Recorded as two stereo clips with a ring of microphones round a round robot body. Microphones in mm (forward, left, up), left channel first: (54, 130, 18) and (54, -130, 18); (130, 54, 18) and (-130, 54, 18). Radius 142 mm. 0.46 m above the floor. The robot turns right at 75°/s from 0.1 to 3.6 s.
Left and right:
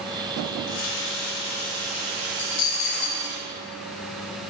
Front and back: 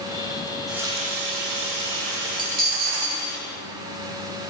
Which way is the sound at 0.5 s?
75° left.